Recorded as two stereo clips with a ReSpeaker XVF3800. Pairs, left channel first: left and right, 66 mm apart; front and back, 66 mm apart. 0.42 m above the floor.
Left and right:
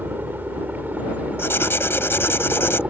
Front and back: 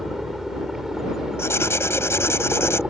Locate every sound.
0.0 s a helicopter: 95° right; by 2.9 s 115° right
1.4 s writing: 45° left